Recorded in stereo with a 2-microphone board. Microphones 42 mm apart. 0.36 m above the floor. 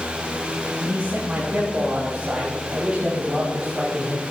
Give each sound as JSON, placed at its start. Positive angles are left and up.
{"t": 0.8, "sound": "a man speaking", "side_deg": -25, "distance_m": 4.0}